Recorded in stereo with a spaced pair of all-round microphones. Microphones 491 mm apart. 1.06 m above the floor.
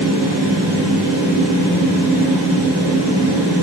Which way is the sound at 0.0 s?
50° left (ahead or behind).